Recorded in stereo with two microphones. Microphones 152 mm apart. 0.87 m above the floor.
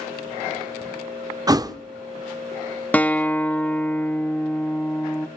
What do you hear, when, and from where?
1.5 s a thud: 25° right (ahead or behind), 0.6 m
2.9 s a guitar: 10° left (ahead or behind), 1.1 m